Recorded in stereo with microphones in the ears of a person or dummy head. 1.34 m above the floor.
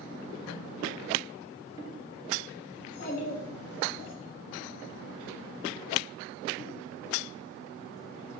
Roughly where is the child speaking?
Left.